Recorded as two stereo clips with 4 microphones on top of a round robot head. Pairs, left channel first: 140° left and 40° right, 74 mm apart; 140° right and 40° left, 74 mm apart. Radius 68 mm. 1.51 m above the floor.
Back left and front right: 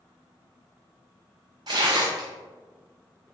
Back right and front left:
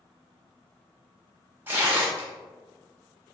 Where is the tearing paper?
20° right, 0.6 m.